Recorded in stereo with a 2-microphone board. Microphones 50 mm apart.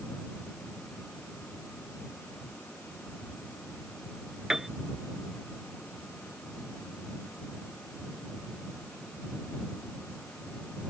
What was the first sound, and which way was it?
A piano, 5° right (ahead or behind).